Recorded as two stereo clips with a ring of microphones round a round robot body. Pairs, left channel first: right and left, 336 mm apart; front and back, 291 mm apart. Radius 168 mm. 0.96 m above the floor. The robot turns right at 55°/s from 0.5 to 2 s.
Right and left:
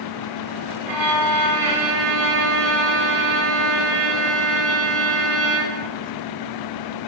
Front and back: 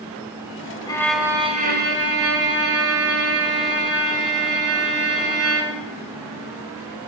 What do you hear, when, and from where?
0.9 s a violin: 75° left, 3 m; by 5.9 s 140° left, 3 m